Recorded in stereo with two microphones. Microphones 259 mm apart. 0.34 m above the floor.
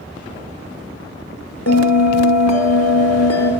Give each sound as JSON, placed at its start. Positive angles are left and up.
{"t": 1.7, "sound": "a bell", "side_deg": 80, "distance_m": 0.8}